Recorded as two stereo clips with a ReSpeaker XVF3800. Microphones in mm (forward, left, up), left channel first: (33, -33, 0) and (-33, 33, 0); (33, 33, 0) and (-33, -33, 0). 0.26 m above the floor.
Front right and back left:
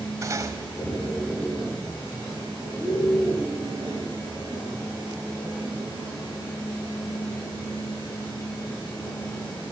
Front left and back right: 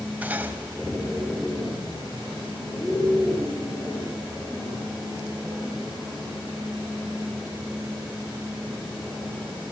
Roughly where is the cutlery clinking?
Behind.